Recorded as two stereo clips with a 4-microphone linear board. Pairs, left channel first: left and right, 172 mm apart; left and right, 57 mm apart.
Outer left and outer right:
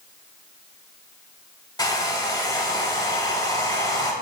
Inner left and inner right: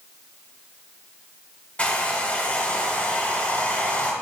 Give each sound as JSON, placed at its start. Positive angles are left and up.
{"t": 1.8, "sound": "a hair dryer", "side_deg": 25, "distance_m": 0.8}